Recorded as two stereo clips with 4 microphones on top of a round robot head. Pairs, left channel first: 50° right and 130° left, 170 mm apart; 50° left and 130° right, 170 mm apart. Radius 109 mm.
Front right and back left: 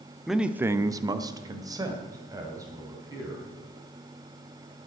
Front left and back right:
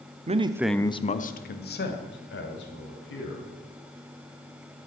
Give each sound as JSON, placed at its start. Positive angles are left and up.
{"t": 0.3, "sound": "a man speaking", "azimuth_deg": -145, "distance_m": 0.9}